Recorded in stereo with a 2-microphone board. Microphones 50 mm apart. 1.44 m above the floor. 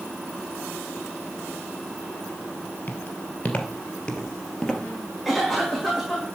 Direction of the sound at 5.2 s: Centre (ahead or behind).